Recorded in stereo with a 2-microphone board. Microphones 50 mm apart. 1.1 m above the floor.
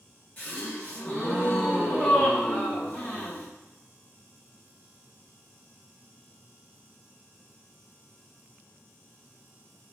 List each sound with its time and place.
0.4 s a gasp: 35° left (ahead or behind), 1.2 m